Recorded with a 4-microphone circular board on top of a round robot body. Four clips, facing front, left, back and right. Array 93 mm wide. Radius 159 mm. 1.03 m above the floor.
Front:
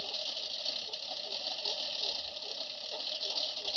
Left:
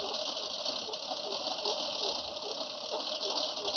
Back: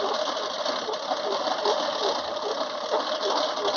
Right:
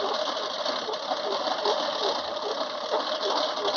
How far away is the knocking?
I don't hear knocking.